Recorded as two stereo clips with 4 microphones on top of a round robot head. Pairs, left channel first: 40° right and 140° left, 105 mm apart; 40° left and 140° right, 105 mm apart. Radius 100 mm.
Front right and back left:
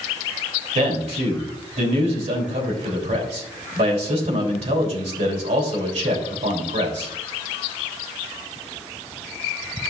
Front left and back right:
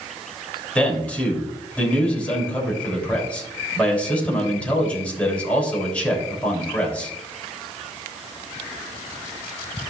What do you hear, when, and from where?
0.8 s a man speaking: 120° left, 3.5 m